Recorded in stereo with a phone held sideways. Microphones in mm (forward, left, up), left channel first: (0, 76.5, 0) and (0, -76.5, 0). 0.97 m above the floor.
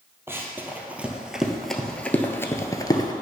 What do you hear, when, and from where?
0.3 s running footsteps: 15° right (ahead or behind), 1.5 m; by 3.1 s 25° left (ahead or behind), 1.0 m